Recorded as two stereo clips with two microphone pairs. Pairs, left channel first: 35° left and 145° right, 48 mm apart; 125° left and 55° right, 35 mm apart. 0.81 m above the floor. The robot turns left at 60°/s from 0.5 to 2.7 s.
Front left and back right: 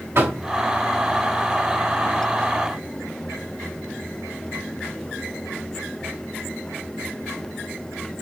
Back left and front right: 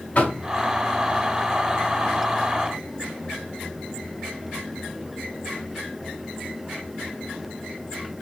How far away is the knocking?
About 4.5 m.